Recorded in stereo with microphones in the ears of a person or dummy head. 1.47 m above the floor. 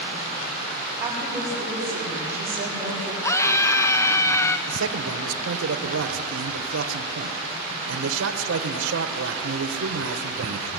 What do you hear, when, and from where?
1.0 s a woman speaking: 15° right (ahead or behind), 7 m
3.2 s a scream: 15° left (ahead or behind), 0.5 m
4.7 s a man speaking: 75° right (ahead or behind), 1.4 m